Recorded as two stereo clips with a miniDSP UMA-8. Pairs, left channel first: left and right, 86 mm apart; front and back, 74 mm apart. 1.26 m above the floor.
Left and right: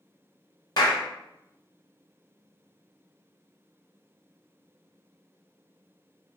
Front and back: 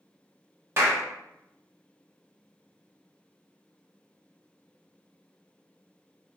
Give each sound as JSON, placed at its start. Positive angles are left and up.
{"t": 0.8, "sound": "a clap", "azimuth_deg": 125, "distance_m": 1.0}